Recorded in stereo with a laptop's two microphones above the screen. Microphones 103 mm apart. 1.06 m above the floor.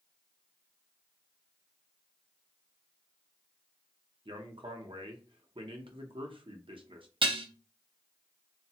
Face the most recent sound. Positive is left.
turn(degrees=-55)  # may be behind; listen again after turning